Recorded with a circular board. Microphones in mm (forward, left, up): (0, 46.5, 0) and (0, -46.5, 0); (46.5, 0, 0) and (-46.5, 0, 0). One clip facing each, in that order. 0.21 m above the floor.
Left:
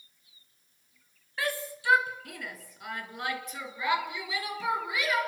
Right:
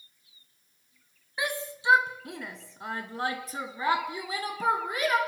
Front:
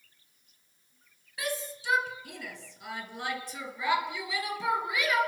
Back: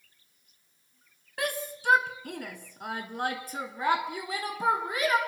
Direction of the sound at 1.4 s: 160° right.